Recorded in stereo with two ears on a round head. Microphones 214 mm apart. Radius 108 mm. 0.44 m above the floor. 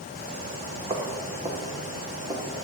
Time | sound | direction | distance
0.9 | footsteps | 25° right (ahead or behind) | 3.5 m